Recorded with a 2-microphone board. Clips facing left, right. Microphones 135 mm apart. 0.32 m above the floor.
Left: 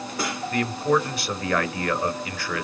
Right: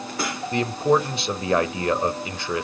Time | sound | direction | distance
0.5 | a man speaking | 25° right (ahead or behind) | 1.1 m